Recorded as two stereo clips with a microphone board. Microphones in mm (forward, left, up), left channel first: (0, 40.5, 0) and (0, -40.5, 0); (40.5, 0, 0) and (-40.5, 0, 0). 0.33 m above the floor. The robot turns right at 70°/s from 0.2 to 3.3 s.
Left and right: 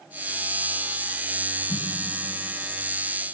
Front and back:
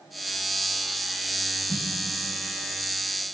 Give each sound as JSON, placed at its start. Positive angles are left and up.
{"t": 1.7, "sound": "a snare drum", "azimuth_deg": 60, "distance_m": 7.5}